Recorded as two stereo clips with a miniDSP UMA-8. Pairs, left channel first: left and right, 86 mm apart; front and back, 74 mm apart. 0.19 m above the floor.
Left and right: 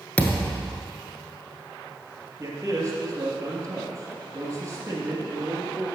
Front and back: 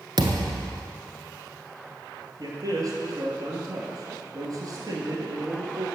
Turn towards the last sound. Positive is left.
turn(degrees=-145)